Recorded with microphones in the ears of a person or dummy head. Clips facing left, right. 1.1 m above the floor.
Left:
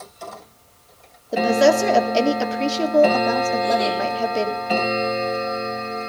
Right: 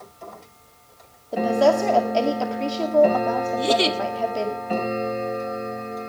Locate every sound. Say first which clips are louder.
1.3 s a woman speaking: left 2 dB; 30° left (ahead or behind), 2.0 m
3.6 s a giggle: left 1 dB; 45° right (ahead or behind), 1.4 m